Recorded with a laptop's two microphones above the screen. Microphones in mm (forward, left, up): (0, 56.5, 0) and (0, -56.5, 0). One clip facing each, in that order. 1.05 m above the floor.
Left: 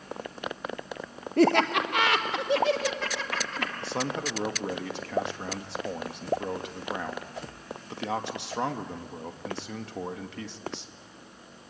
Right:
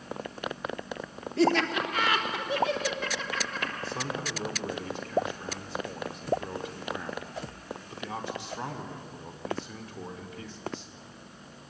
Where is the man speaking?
75° left (ahead or behind), 1.4 m.